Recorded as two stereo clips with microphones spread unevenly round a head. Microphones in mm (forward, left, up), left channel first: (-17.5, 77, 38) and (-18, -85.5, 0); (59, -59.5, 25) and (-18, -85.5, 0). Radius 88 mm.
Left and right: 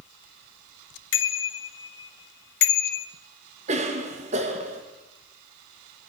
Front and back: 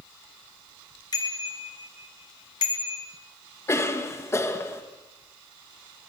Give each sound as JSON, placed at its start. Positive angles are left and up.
{"t": 1.1, "sound": "a bicycle bell", "azimuth_deg": 80, "distance_m": 2.5}
{"t": 3.7, "sound": "a cough", "azimuth_deg": -40, "distance_m": 2.5}